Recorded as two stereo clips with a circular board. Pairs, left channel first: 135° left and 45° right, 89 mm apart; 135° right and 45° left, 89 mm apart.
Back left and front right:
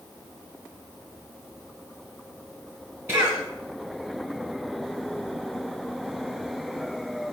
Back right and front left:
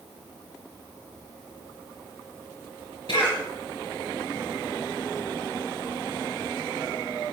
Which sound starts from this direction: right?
A cough, at 3.1 s.